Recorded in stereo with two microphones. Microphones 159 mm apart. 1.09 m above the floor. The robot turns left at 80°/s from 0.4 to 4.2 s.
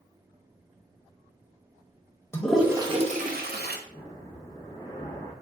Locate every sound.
2.3 s a toilet flushing: 15° left (ahead or behind), 0.6 m; by 3.8 s 70° right (ahead or behind), 0.6 m
3.9 s breathing: 45° left (ahead or behind), 1.3 m; by 5.3 s 25° left (ahead or behind), 1.3 m